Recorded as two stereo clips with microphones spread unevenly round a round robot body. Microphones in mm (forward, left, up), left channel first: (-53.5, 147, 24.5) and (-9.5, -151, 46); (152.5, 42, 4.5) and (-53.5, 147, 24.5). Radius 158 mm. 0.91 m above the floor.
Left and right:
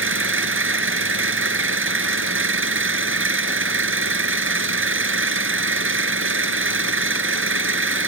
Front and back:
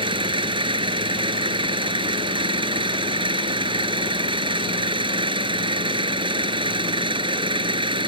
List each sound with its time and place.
0.0 s an engine running: 130° right